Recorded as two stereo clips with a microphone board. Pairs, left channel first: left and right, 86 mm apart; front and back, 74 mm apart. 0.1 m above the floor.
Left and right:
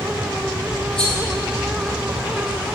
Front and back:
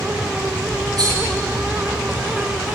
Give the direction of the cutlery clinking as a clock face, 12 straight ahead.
6 o'clock.